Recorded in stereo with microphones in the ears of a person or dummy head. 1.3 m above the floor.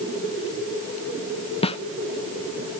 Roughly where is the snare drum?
Left.